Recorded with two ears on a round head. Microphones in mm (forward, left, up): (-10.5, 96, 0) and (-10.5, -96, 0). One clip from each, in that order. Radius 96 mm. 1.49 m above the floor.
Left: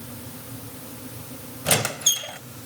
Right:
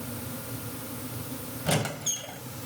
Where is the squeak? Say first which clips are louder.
Left 7 dB; 50° left (ahead or behind), 1.8 m.